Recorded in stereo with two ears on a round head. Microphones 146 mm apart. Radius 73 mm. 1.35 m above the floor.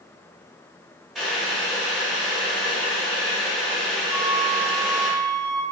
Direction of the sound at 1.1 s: Centre (ahead or behind).